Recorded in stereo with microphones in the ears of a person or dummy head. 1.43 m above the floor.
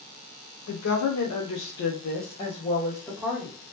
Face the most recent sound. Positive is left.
turn(degrees=5)  # may be behind; listen again after turning